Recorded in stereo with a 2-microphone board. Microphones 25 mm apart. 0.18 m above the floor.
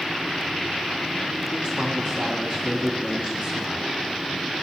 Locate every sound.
1.5 s a man speaking: 25° right (ahead or behind), 1.5 m